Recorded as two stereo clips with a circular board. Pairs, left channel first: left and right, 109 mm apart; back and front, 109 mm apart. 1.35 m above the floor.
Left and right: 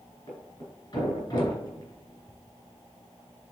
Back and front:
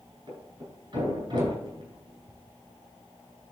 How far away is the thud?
About 5 m.